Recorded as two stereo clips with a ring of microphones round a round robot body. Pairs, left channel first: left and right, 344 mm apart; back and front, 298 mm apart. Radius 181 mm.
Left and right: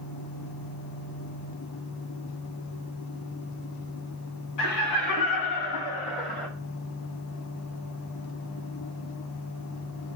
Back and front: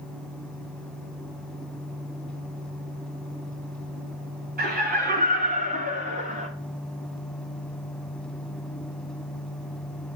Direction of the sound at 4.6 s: 60° left.